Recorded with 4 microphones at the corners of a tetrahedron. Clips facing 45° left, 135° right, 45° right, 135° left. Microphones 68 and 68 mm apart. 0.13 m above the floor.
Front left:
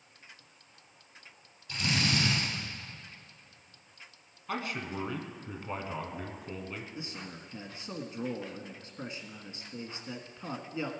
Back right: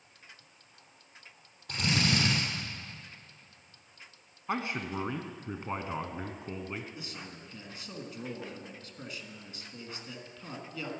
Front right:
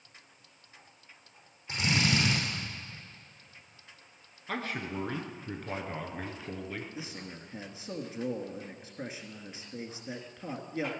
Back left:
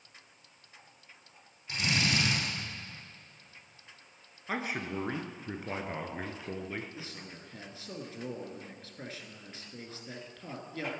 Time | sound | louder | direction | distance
1.7 | a drill | back right 1 dB, front right 2 dB | 110° right | 5.5 m
4.5 | a man speaking | back right 2 dB, back left 1 dB | 165° right | 1.2 m
7.0 | a man speaking | front left 2 dB, front right 3 dB | 10° left | 1.4 m